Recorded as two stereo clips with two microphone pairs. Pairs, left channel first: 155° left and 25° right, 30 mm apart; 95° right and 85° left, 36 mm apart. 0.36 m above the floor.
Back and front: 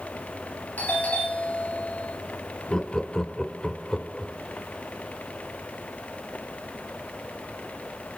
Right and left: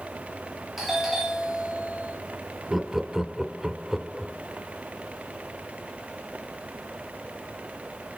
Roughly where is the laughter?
Behind left.